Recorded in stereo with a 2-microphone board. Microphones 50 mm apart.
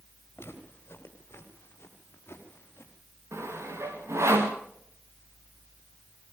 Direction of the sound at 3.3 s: 70° right (ahead or behind).